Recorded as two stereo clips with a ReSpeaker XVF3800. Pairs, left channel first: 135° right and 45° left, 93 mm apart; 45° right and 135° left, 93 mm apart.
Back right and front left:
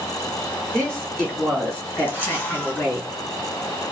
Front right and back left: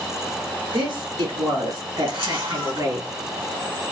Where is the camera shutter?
160° left, 3.5 m.